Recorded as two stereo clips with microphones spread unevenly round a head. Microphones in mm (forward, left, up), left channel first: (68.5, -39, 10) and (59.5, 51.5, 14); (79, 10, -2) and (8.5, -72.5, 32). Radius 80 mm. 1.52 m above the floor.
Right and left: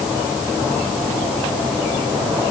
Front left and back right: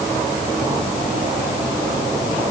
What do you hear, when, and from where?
Only background noise.